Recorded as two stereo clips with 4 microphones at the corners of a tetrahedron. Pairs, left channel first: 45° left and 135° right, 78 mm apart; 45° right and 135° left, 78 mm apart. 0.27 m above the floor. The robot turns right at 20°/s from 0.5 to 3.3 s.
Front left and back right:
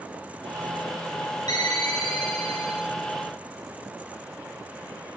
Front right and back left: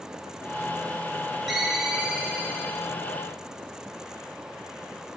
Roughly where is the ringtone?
Ahead left.